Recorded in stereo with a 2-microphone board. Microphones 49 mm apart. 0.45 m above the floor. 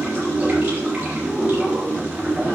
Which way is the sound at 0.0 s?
30° right (ahead or behind).